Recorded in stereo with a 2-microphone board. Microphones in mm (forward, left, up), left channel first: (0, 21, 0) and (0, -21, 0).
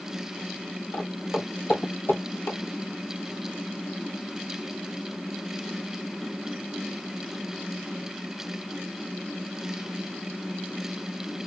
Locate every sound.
0.9 s footsteps: 65° left (ahead or behind), 1.2 m; by 2.6 s 45° left (ahead or behind), 0.8 m